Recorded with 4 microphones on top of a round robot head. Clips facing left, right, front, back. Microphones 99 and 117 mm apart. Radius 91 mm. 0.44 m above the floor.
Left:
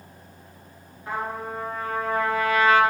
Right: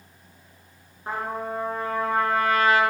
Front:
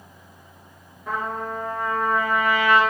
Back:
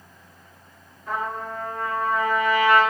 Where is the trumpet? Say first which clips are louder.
Right 1 dB, front 1 dB; 40° right, 1.8 m.